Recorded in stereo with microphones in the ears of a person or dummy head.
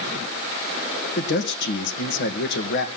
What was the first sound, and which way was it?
A man speaking, 60° left (ahead or behind).